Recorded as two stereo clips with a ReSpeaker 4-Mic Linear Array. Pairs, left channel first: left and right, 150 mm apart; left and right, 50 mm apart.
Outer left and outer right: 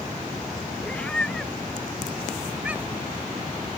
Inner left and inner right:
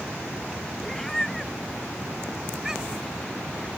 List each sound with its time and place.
0.8 s a cat meowing: 10° left (ahead or behind); by 3.1 s 15° right (ahead or behind)